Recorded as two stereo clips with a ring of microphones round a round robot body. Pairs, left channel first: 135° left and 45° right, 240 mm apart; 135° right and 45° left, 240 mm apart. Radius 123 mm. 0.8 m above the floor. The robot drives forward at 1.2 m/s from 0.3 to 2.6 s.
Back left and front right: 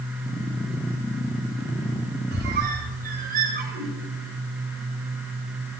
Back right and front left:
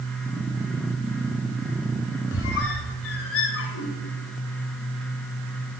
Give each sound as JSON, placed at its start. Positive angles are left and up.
{"t": 2.3, "sound": "a squeak", "azimuth_deg": -95, "distance_m": 2.5}